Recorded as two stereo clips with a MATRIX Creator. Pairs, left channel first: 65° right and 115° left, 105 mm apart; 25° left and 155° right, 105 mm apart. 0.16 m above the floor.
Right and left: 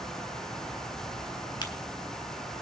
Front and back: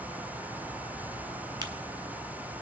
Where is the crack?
110° right, 1.3 m.